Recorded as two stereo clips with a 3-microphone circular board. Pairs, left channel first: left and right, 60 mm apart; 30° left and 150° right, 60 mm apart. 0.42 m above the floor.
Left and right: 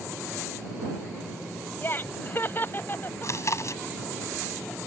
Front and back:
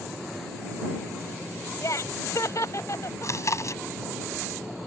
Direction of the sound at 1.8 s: 45° left.